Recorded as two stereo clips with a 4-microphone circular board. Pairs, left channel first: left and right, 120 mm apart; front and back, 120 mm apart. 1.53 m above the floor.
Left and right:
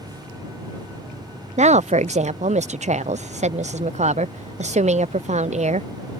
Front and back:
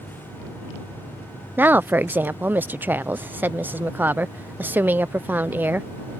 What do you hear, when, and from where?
1.6 s a woman speaking: 105° right